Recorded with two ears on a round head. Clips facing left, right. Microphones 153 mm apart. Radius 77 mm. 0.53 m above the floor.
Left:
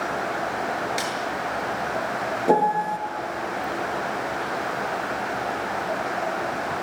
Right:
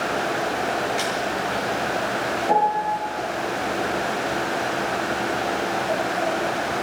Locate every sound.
1.0 s a snare drum: 50° left (ahead or behind), 9 m
2.5 s a piano: 60° left (ahead or behind), 2 m